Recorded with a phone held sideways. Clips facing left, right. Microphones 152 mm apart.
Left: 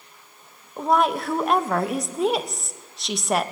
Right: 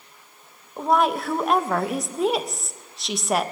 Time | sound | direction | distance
0.8 | a woman speaking | centre (ahead or behind) | 0.7 m